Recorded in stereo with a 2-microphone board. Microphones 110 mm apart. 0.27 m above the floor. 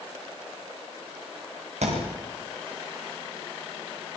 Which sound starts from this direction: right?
A thud, at 1.8 s.